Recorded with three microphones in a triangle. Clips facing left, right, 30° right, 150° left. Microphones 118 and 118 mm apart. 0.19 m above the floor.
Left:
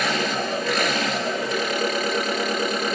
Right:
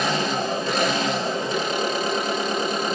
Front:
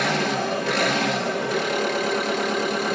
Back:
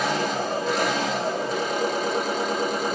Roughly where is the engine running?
Ahead right.